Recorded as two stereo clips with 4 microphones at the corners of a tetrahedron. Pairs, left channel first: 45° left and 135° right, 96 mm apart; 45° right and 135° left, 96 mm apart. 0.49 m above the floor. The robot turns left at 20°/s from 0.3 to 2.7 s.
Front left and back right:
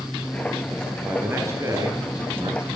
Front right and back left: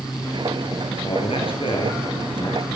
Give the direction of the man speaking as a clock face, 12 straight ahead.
2 o'clock.